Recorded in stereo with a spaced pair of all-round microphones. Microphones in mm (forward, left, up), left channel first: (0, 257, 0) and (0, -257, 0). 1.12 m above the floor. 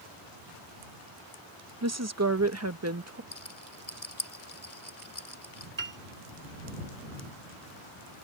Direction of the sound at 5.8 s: 40° right (ahead or behind).